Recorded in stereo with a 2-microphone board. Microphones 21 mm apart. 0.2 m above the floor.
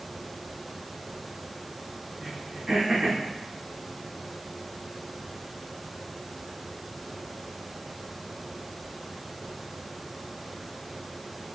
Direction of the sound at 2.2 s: 30° right (ahead or behind).